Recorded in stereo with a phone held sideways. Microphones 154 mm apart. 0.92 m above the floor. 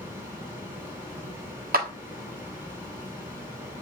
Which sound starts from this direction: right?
A clap, at 1.7 s.